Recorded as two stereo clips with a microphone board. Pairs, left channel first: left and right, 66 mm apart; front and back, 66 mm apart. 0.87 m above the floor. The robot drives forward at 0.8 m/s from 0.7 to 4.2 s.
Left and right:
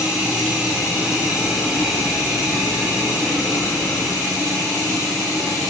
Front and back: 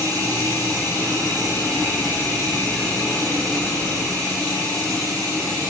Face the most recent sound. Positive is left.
turn(degrees=-170)